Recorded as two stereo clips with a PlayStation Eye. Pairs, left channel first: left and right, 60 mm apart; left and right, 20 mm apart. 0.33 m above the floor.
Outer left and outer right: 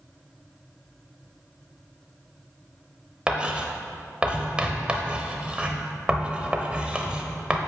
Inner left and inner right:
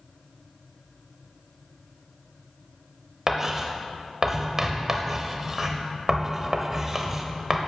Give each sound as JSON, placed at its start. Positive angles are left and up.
{"t": 3.3, "sound": "writing", "side_deg": -20, "distance_m": 0.8}